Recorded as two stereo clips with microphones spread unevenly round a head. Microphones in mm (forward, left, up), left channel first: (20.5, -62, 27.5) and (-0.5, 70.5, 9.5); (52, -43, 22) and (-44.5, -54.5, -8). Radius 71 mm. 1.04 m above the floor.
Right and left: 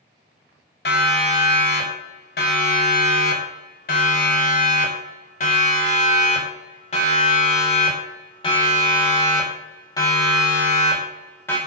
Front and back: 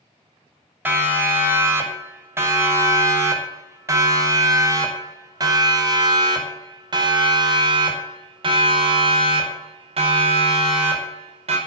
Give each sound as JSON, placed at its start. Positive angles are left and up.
{"t": 0.8, "sound": "a siren", "azimuth_deg": -100, "distance_m": 6.5}